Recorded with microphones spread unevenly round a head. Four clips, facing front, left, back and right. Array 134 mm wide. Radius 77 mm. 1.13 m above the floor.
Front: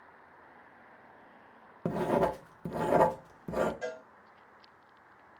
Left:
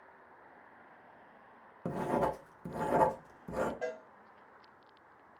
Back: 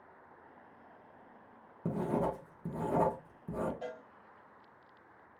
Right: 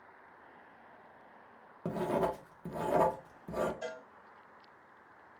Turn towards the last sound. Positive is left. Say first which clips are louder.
# left 3 dB, front 4 dB
turn(degrees=100)